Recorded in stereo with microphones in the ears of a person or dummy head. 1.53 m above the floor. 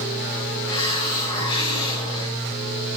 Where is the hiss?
25° left (ahead or behind), 3.5 m.